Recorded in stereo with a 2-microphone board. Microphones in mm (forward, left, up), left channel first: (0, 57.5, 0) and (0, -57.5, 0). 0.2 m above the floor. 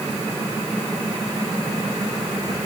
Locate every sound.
Only background noise.